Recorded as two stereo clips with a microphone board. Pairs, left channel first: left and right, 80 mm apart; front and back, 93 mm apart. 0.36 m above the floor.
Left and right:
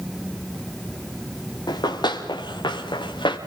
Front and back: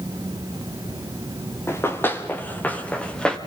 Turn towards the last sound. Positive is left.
turn(degrees=80)